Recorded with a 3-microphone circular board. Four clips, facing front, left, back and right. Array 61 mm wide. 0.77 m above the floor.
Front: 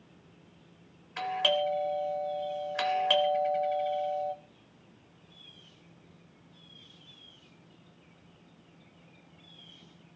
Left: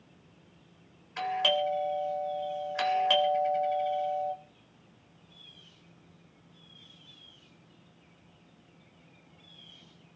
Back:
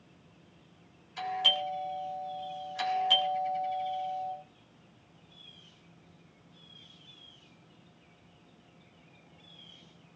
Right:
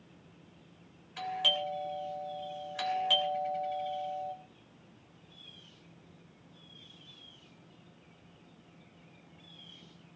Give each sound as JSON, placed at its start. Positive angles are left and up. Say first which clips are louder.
{"t": 1.2, "sound": "a doorbell", "louder": "left 5 dB, front 3 dB", "azimuth_deg": 35, "distance_m": 3.5}